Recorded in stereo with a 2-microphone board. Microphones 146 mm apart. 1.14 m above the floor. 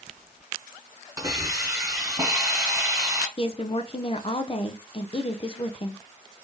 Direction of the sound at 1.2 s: 20° right (ahead or behind).